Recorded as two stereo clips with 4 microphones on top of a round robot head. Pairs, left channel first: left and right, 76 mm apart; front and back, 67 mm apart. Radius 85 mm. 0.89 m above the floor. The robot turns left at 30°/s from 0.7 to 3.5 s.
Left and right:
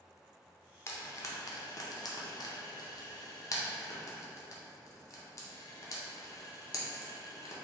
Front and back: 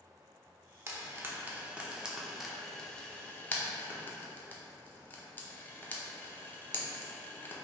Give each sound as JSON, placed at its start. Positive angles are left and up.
{"t": 0.9, "sound": "frying", "azimuth_deg": 140, "distance_m": 0.6}